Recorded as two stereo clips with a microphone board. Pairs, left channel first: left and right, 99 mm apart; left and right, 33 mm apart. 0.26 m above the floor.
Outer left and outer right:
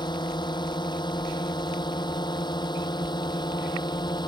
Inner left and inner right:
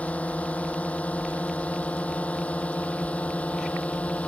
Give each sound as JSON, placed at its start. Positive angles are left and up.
{"t": 0.0, "sound": "a drone", "side_deg": 50}